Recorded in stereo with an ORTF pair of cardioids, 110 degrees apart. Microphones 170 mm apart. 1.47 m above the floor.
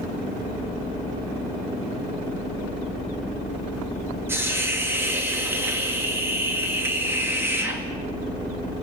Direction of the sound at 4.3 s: 15° right.